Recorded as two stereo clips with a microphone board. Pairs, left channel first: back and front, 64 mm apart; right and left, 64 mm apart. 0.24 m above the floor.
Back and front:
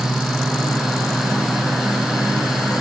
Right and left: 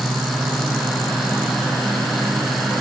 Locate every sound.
Only background noise.